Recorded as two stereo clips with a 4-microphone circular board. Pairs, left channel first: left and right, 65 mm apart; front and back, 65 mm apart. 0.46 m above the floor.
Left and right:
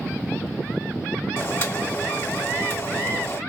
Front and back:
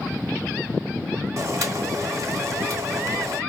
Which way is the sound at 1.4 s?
145° left.